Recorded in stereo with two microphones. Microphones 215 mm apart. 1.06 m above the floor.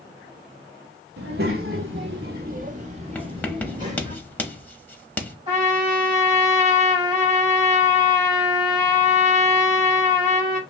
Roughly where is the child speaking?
Right.